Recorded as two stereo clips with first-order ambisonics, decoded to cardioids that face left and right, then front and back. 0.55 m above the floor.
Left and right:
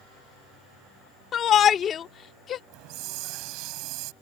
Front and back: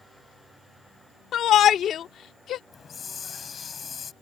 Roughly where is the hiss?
Right.